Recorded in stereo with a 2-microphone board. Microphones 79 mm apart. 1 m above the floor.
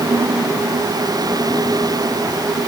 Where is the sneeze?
I don't hear a sneeze.